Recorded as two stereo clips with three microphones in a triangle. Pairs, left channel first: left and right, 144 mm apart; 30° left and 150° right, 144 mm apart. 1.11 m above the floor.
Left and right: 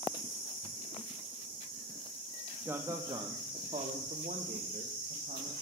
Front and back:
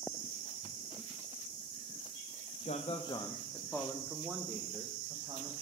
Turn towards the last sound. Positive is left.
turn(degrees=-85)